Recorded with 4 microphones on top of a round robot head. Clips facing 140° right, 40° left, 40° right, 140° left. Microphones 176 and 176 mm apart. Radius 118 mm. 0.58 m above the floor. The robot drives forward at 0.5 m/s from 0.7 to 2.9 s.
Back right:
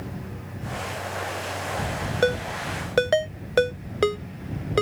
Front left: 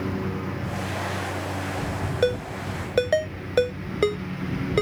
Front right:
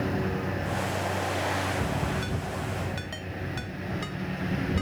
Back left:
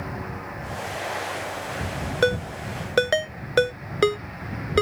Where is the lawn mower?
20° left.